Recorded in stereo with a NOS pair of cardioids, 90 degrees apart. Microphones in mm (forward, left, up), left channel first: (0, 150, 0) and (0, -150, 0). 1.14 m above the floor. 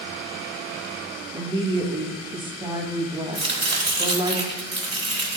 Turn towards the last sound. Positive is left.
turn(degrees=-20)